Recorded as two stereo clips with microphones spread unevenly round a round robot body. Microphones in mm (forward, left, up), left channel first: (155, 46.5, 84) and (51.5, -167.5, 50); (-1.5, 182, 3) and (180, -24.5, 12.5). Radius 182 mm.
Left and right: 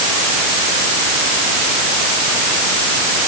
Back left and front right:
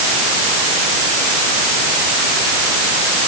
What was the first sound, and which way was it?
Only background noise.